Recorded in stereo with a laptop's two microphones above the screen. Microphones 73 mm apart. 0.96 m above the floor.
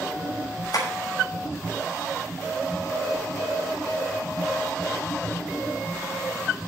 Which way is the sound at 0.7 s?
60° left (ahead or behind).